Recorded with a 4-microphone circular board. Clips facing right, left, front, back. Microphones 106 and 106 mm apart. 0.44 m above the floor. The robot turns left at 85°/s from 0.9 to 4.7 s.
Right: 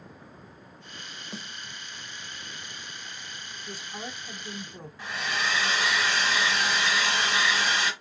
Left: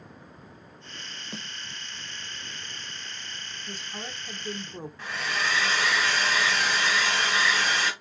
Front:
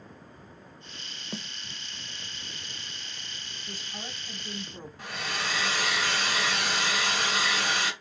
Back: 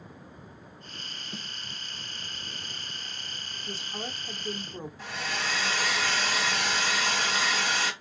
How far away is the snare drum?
About 0.7 m.